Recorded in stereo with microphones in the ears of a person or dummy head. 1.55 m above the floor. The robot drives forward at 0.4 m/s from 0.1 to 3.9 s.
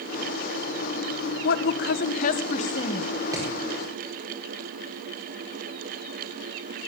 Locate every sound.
1.4 s a woman speaking: 65° left (ahead or behind), 0.8 m; by 3.1 s 40° left (ahead or behind), 1.2 m
3.3 s hammering: 15° right (ahead or behind), 4.5 m